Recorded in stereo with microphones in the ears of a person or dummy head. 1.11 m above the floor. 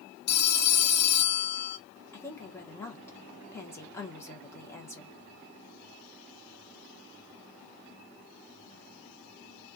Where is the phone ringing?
60° left (ahead or behind), 0.6 m.